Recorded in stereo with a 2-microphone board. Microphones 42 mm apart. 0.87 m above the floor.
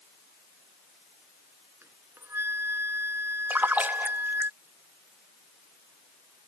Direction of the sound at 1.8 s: 70° right (ahead or behind).